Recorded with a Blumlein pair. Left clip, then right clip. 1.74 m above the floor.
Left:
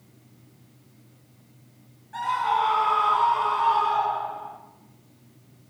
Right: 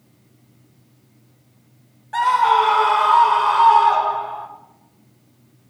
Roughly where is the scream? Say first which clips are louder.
Right 9 dB; ahead right.